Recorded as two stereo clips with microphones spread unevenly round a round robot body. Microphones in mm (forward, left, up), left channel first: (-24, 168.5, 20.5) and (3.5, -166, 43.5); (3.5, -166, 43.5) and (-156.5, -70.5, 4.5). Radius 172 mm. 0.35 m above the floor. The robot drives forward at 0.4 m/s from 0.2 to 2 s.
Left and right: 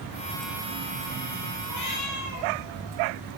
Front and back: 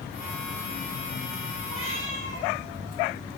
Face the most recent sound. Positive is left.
turn(degrees=135)